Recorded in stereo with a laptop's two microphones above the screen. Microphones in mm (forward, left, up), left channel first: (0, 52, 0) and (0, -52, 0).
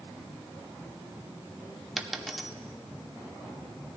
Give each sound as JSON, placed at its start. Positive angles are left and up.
{"t": 2.0, "sound": "a dropped coin", "side_deg": 0, "distance_m": 0.8}